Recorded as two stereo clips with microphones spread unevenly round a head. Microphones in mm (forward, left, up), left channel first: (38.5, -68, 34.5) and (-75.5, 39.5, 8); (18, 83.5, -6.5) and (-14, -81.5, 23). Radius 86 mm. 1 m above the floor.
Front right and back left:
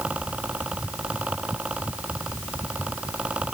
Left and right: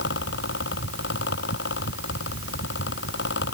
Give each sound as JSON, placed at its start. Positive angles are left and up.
{"t": 0.0, "sound": "a fan", "azimuth_deg": 55}